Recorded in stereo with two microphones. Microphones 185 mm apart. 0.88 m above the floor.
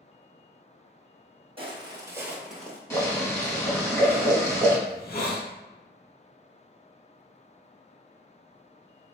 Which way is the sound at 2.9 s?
15° left (ahead or behind).